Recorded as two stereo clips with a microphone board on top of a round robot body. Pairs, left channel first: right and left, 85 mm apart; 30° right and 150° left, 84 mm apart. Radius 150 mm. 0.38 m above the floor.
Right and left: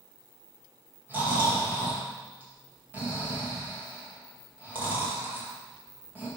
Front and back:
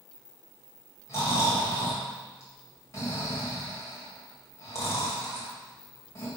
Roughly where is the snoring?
Ahead left.